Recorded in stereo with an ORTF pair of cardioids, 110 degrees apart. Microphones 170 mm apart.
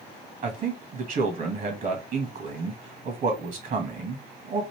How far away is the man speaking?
About 1.5 m.